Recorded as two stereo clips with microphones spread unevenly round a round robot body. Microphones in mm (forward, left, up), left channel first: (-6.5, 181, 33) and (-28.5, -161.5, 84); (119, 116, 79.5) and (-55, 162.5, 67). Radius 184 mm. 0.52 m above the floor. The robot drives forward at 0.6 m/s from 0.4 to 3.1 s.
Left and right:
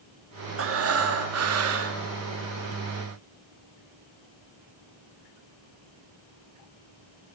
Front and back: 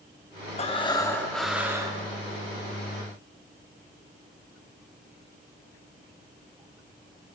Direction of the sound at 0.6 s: 50° right.